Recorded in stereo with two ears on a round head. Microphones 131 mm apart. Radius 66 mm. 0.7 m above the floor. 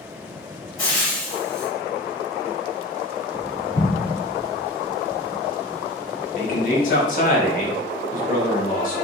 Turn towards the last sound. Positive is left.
turn(degrees=60)  # may be behind; listen again after turning